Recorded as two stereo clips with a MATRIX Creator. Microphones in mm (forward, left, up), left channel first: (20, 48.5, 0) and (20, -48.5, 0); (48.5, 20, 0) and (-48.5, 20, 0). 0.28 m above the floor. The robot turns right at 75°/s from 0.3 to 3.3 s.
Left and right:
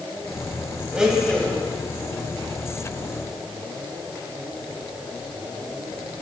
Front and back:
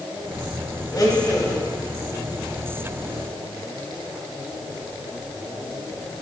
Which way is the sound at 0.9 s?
15° right.